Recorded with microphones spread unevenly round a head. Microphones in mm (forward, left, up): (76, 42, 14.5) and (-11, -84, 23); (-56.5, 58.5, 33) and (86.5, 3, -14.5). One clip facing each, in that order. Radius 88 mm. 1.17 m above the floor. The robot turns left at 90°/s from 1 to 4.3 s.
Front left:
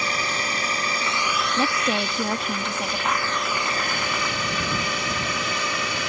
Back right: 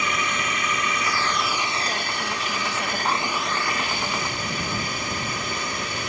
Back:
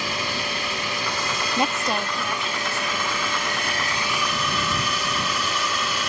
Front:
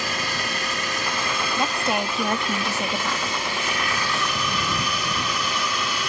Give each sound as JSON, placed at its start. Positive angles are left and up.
{"t": 0.0, "sound": "a drone", "azimuth_deg": 5}
{"t": 1.6, "sound": "a woman speaking", "azimuth_deg": 90}